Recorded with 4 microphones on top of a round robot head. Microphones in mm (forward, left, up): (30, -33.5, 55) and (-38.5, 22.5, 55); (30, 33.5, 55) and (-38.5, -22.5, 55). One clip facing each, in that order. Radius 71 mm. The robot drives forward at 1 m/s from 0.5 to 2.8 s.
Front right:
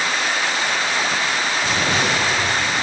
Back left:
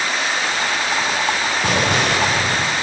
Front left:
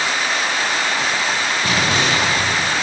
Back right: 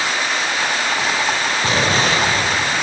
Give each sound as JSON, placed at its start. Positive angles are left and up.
{"t": 1.6, "sound": "an explosion", "azimuth_deg": 165, "distance_m": 2.0}